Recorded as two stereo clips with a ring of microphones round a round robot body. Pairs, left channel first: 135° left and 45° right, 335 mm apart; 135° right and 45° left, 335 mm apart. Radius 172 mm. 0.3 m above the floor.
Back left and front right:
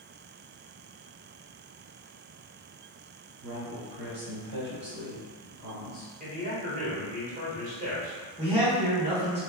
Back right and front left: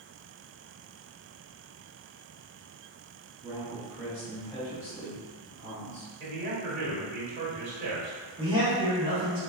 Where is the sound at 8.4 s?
5° right, 1.2 m.